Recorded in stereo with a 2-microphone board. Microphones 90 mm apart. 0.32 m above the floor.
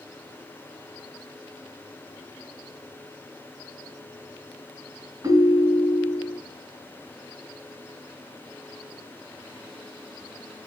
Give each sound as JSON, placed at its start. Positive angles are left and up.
{"t": 5.2, "sound": "a ringtone", "side_deg": -40, "distance_m": 2.0}